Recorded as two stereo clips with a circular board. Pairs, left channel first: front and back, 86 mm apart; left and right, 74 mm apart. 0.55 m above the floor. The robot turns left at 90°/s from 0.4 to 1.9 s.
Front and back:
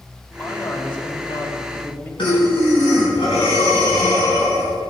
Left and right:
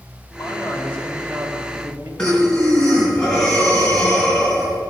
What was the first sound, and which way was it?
A man speaking, 70° left.